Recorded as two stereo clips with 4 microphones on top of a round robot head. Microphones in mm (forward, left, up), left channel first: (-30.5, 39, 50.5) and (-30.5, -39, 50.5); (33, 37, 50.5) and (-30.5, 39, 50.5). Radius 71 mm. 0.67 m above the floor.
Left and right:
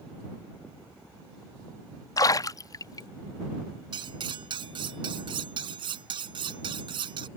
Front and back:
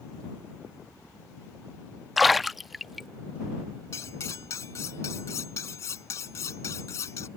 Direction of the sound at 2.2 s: 90° left.